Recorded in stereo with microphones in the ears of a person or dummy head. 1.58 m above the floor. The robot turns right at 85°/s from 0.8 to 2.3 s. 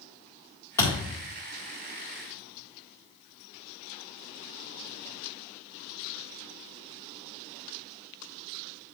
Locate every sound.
0.8 s a thud: 20° left (ahead or behind), 2.5 m; by 1.1 s 10° right (ahead or behind), 2.5 m